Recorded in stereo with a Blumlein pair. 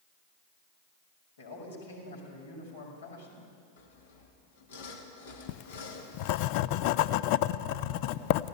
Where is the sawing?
60° left, 2.5 m.